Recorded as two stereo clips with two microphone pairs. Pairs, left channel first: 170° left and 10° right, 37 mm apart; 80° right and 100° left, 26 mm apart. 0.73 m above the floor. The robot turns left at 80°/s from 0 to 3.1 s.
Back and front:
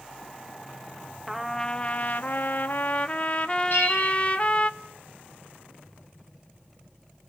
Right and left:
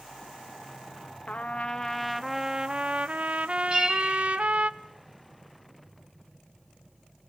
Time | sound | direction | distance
1.3 | a trumpet | 85° right | 0.5 m
3.7 | a bell | 165° left | 4 m